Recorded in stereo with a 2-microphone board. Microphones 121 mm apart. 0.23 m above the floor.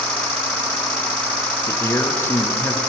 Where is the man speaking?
20° left (ahead or behind), 2.5 m.